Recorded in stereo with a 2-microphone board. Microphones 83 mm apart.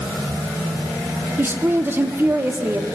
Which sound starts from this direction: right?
A woman speaking, at 1.4 s.